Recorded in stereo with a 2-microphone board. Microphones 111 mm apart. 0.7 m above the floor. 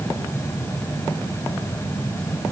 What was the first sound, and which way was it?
Only background noise.